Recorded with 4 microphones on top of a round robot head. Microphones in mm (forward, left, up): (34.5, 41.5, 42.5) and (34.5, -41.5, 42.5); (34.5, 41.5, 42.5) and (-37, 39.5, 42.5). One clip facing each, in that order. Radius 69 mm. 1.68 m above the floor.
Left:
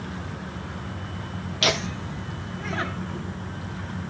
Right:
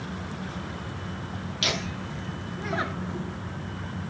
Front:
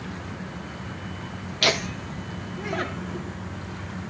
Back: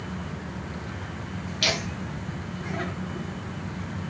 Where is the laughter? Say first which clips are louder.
Left 6 dB, front 5 dB; 45° left, 0.7 m; by 3.4 s 25° right, 1.7 m.